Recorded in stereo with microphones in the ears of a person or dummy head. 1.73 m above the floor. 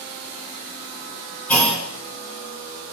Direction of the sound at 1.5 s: 5° left (ahead or behind).